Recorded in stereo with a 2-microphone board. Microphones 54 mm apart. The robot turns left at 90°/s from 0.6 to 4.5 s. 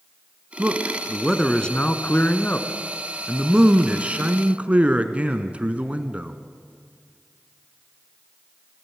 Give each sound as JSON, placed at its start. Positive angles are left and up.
{"t": 0.6, "sound": "a man speaking", "side_deg": -25, "distance_m": 1.2}